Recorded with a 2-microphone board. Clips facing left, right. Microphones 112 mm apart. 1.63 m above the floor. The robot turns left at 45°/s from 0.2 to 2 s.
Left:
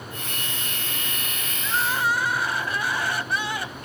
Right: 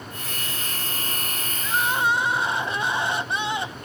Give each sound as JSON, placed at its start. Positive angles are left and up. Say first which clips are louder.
{"t": 1.6, "sound": "crying", "louder": "right 1 dB", "side_deg": -10}